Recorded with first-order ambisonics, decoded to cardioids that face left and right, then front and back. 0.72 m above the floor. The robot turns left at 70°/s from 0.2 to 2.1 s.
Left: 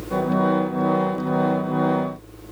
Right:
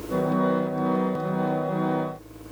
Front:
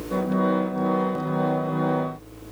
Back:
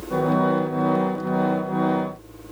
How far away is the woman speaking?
No woman speaking in this recording.